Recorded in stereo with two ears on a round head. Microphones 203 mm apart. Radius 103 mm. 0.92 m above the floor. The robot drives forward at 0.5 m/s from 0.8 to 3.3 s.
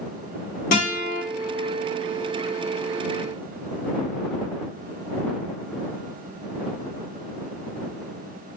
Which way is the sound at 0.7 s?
35° left (ahead or behind).